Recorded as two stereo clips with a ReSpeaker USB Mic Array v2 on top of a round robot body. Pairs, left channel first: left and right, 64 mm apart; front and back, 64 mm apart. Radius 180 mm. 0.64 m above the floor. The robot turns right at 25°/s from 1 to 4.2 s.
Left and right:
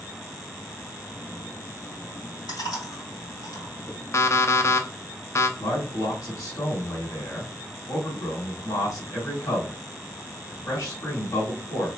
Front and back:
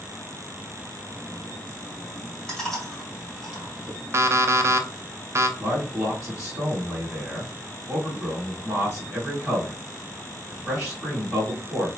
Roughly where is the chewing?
Left.